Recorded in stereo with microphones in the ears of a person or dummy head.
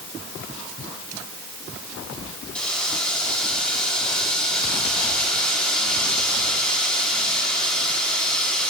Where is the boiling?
15° left (ahead or behind), 4.5 m.